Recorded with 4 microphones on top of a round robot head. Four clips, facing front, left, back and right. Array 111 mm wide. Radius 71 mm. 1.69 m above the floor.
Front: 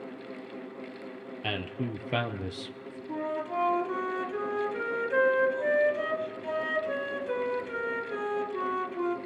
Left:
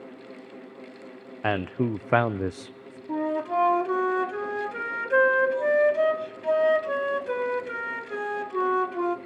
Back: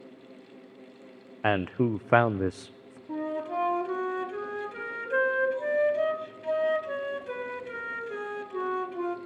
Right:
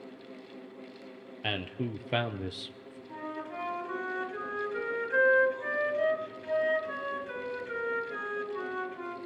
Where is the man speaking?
145° left, 0.7 m.